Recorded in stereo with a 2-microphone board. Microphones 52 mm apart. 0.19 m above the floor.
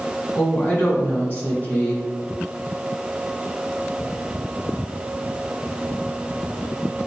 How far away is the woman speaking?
About 1.8 m.